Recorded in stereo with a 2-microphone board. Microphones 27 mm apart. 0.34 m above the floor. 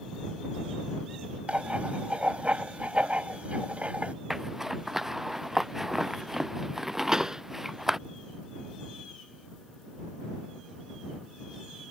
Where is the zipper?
15° right (ahead or behind).